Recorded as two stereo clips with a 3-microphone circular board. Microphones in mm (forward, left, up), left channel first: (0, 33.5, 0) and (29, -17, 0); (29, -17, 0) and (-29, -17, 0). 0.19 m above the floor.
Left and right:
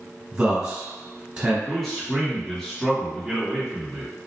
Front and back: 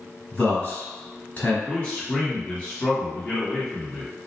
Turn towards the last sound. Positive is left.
turn(degrees=40)